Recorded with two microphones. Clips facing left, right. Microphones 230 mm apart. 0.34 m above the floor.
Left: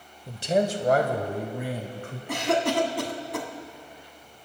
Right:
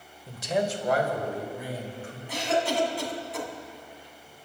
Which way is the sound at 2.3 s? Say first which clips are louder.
Left 3 dB; 70° left (ahead or behind).